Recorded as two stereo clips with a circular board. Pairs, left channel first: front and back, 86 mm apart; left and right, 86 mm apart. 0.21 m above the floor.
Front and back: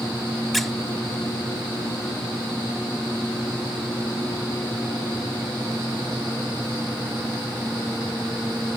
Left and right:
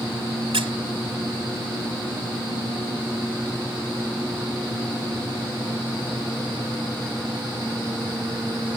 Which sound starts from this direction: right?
A squeak, at 0.5 s.